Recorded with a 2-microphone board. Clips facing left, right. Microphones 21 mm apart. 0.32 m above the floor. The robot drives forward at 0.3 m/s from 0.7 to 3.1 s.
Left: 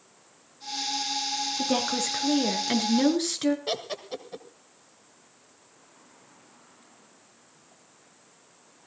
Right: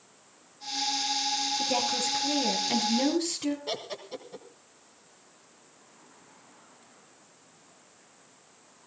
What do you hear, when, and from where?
1.6 s a woman speaking: 70° left (ahead or behind), 4.5 m; by 3.6 s 65° left (ahead or behind), 4.5 m
3.7 s laughter: 30° left (ahead or behind), 1.7 m